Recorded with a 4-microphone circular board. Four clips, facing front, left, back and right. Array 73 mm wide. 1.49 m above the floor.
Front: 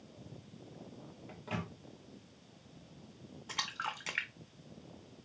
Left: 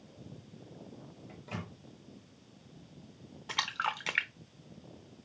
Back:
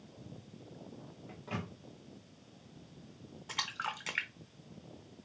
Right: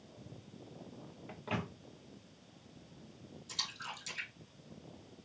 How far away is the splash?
About 0.6 m.